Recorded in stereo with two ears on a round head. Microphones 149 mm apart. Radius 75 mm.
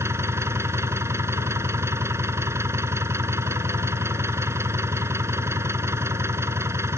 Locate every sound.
0.0 s an engine running: 15° right (ahead or behind)